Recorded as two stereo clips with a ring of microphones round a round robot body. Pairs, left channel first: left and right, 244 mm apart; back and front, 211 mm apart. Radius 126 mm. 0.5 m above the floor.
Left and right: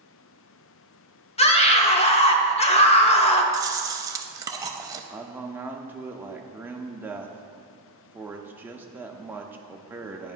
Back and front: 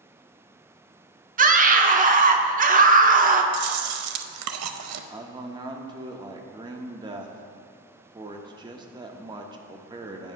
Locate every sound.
1.4 s a scream: 35° left, 0.9 m
3.5 s chewing: 15° right, 0.5 m
5.1 s a man speaking: 20° right, 0.7 m